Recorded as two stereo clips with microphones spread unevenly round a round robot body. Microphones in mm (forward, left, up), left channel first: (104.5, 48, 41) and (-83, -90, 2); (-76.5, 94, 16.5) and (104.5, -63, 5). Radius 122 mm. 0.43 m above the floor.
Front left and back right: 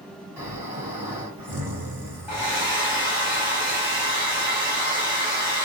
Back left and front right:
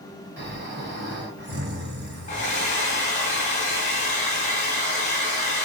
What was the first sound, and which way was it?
Snoring, 75° right.